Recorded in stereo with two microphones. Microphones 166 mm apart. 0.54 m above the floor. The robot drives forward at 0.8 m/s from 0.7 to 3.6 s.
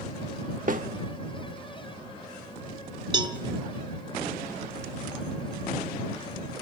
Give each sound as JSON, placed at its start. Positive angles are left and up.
{"t": 0.7, "sound": "a snare drum", "side_deg": -55, "distance_m": 1.1}
{"t": 3.1, "sound": "a cowbell", "side_deg": -30, "distance_m": 0.7}